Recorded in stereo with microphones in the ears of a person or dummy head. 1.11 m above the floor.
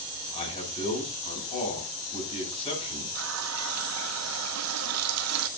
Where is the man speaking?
35° left (ahead or behind), 7.5 m.